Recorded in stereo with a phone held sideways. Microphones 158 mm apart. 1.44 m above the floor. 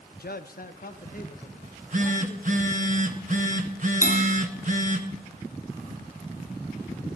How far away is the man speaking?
About 0.6 m.